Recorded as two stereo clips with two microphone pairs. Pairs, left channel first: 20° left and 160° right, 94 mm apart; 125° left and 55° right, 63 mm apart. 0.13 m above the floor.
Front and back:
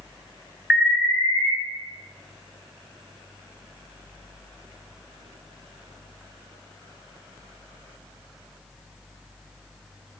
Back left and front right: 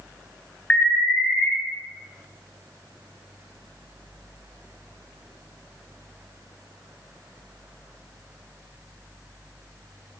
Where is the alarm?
130° left, 1.7 m.